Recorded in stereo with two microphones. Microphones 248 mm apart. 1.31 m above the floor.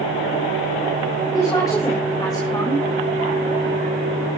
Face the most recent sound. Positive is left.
turn(degrees=15)  # may be behind; listen again after turning